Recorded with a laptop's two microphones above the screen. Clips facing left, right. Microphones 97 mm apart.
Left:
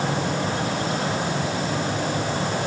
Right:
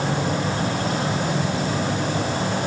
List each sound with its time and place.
Only background noise.